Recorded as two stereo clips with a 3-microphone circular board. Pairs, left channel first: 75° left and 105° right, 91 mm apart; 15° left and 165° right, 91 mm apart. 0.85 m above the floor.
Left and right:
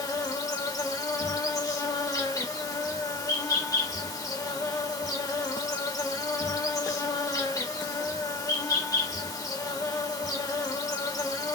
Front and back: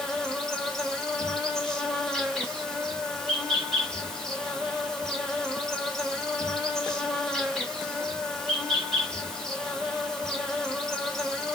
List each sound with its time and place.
0.0 s an insect: 100° left, 1.7 m